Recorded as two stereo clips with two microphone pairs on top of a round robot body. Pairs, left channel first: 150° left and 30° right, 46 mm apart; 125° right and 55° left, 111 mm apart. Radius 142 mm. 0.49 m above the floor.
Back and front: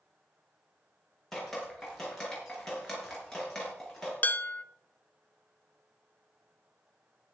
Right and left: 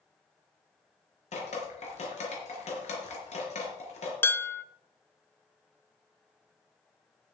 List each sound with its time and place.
1.3 s dripping: 125° right, 4 m
4.2 s dishes clattering: straight behind, 0.8 m